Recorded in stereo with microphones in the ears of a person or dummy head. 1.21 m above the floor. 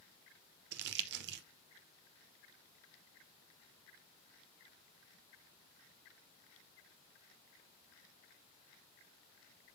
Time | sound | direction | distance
0.7 | crumpling | 60° right (ahead or behind) | 0.5 m